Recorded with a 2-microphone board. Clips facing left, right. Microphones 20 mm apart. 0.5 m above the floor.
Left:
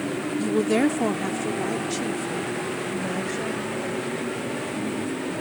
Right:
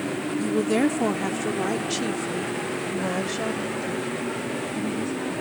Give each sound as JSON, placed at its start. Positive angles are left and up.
{"t": 0.4, "sound": "a woman speaking", "side_deg": 20}